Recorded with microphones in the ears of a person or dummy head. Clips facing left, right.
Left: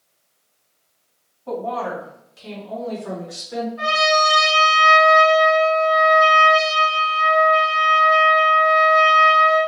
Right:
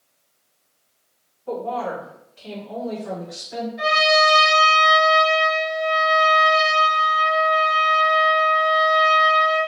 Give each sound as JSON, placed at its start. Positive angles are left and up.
{"t": 1.5, "sound": "a woman speaking", "side_deg": 75, "distance_m": 2.0}
{"t": 3.8, "sound": "a trumpet", "side_deg": 0, "distance_m": 1.6}